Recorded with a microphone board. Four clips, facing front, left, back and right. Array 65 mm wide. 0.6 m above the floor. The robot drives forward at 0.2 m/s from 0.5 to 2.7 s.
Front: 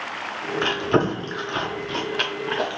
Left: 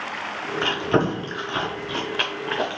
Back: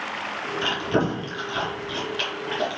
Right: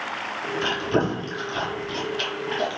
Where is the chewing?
35° left, 0.9 m; by 2.8 s 60° left, 0.6 m.